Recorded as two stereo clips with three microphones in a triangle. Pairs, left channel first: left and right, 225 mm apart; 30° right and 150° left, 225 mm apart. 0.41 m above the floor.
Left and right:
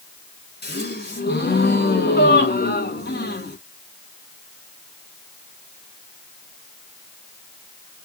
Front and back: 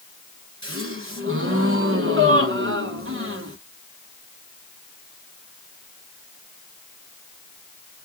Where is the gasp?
130° left, 1.2 m.